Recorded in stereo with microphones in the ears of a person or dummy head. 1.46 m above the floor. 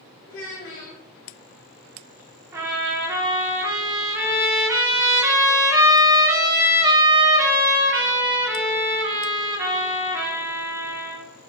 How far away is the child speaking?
About 0.8 m.